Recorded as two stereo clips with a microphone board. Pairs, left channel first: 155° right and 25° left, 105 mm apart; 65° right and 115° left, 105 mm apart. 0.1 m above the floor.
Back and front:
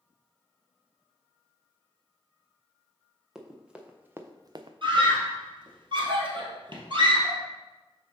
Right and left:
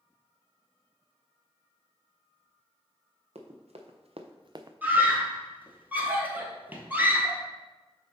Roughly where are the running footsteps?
Left.